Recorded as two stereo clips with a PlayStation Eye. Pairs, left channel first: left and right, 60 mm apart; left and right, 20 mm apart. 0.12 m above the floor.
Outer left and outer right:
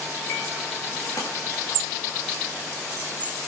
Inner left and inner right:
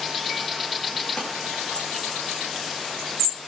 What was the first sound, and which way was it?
A clap, 70° left (ahead or behind).